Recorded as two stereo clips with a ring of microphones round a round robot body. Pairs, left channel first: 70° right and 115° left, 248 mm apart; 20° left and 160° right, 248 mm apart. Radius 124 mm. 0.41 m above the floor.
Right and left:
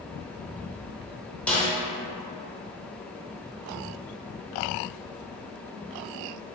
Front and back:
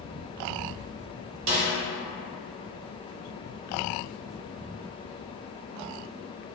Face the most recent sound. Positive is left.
turn(degrees=-150)